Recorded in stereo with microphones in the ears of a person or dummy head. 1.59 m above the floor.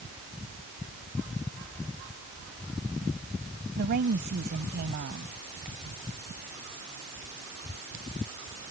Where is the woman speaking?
50° right (ahead or behind).